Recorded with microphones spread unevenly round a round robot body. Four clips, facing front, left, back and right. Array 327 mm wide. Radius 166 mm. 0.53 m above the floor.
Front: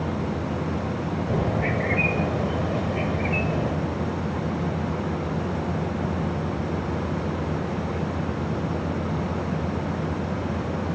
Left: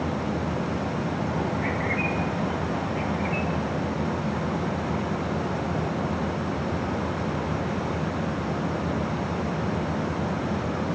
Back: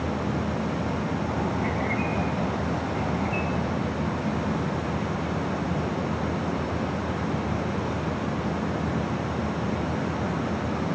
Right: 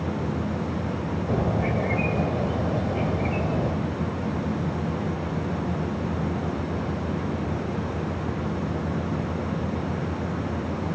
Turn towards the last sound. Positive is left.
turn(degrees=-55)